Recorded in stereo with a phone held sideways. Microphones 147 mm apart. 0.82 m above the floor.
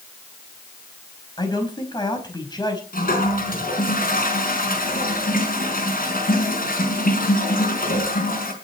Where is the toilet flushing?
75° left (ahead or behind), 5 m.